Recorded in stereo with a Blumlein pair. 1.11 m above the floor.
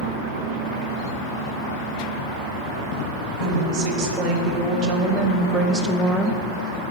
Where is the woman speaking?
40° right, 1.9 m; by 6.8 s 40° left, 0.6 m.